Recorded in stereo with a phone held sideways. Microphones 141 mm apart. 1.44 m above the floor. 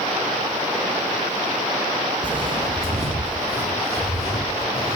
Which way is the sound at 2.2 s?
35° right (ahead or behind).